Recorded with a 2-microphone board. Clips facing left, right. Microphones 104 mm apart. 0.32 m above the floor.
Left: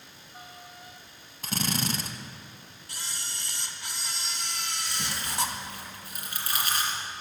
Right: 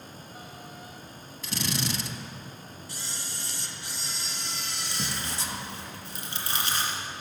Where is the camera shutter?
65° left (ahead or behind), 1.8 m.